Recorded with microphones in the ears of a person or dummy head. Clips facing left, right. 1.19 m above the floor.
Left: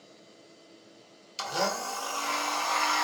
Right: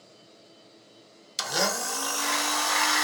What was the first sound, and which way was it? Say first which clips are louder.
A blender: right 1 dB; 25° right (ahead or behind).